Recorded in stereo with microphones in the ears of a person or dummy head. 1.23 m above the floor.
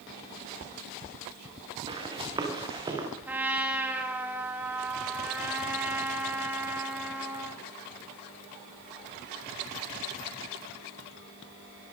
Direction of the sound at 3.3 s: 5° right (ahead or behind).